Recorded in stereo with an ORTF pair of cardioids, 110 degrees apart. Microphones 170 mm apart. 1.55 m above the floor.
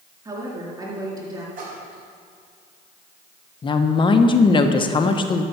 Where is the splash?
55° right, 5 m.